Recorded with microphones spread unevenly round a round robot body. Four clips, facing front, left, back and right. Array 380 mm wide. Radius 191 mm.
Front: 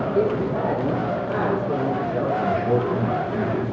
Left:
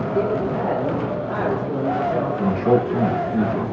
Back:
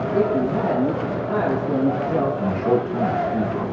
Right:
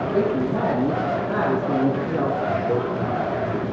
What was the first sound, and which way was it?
A woman speaking, 145° right.